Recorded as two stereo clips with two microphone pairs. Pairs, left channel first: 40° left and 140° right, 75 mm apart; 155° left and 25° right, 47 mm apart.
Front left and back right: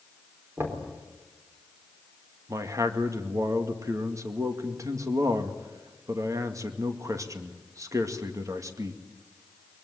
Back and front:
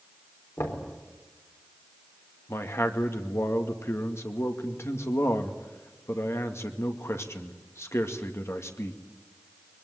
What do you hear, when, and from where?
0.6 s knocking: 160° left, 4 m
2.5 s a man speaking: 175° left, 2 m